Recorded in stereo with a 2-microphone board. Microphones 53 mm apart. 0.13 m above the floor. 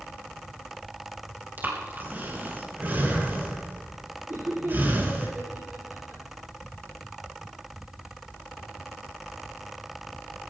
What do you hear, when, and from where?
1.6 s breathing: 40° right (ahead or behind), 3.5 m
4.3 s laughter: 50° right (ahead or behind), 6.5 m